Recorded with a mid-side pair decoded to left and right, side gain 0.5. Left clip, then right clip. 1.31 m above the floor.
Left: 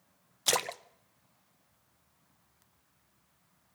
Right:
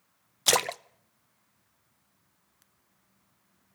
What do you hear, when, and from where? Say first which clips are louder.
0.5 s a splash: right 5 dB; 30° right, 0.6 m